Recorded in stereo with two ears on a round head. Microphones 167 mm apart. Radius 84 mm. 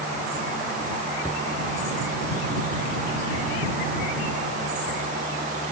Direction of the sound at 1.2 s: 15° left (ahead or behind).